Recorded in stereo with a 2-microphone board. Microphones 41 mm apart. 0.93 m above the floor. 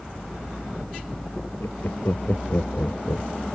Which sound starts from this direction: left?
Laughter, at 1.6 s.